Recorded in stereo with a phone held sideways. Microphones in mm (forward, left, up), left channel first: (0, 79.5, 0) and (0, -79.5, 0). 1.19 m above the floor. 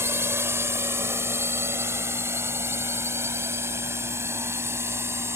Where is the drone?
15° right (ahead or behind).